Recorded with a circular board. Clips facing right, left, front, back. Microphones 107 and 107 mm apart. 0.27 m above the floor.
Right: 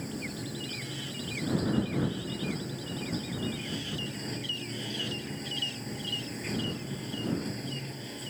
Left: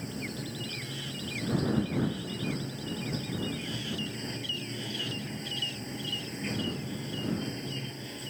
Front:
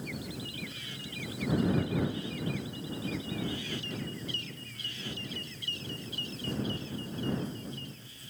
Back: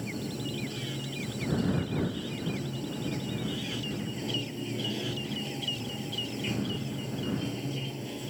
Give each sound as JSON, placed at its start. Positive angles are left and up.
{"t": 0.0, "sound": "running water", "azimuth_deg": -175}